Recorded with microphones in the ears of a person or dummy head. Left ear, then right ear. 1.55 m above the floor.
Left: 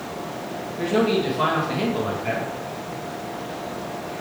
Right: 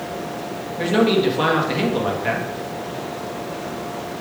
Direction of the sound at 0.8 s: 15° right (ahead or behind).